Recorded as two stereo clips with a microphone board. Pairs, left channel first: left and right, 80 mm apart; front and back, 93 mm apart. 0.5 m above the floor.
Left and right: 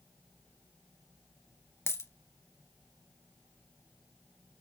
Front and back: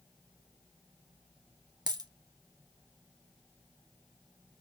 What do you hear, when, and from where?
1.9 s a dropped coin: 145° left, 0.7 m